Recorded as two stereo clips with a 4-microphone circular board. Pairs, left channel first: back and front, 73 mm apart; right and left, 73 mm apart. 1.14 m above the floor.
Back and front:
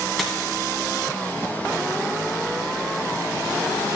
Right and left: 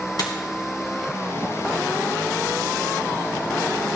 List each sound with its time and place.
0.2 s a dropped coin: 90° right, 1.9 m